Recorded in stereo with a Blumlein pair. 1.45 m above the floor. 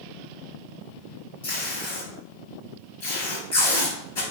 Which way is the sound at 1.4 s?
60° left.